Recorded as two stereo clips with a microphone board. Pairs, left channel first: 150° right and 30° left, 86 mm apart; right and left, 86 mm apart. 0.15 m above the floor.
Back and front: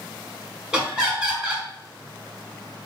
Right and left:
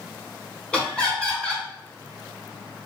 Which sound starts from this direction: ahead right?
Laughter, at 0.7 s.